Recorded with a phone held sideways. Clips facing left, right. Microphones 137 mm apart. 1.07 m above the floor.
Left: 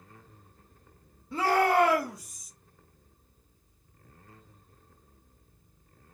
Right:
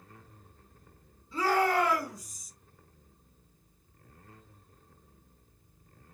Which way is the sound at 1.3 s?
65° left (ahead or behind).